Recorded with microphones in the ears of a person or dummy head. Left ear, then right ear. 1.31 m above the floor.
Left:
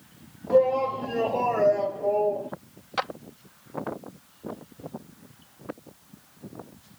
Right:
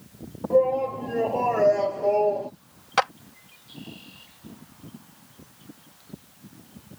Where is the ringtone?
I don't hear a ringtone.